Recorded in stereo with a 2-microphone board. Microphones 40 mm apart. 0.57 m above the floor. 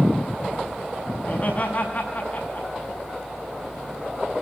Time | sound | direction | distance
1.2 | laughter | 40° left (ahead or behind) | 5.5 m